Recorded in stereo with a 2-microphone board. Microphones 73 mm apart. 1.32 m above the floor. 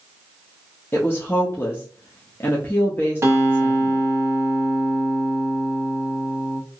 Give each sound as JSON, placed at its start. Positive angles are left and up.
{"t": 0.9, "sound": "a woman speaking", "side_deg": 30, "distance_m": 0.7}
{"t": 3.2, "sound": "a guitar", "side_deg": -35, "distance_m": 0.9}